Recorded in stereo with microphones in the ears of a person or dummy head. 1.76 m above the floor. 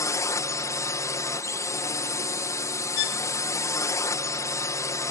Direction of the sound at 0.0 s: 15° left (ahead or behind).